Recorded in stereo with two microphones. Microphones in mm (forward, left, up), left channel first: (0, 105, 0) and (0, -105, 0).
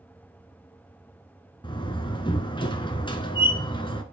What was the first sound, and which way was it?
A door slam, 20° left (ahead or behind).